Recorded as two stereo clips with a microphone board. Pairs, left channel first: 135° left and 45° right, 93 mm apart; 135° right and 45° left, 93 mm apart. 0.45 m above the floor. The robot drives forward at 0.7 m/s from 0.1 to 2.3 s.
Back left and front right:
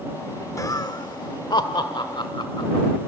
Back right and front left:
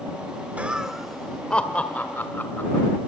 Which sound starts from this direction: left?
Laughter, at 0.6 s.